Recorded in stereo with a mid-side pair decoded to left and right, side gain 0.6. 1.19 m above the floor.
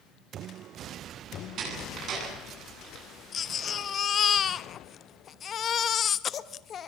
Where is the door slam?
55° right, 9.5 m.